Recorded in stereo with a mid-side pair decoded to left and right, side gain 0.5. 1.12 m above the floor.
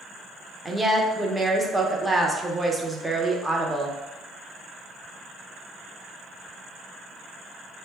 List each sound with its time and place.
0.7 s a woman speaking: 10° right, 0.7 m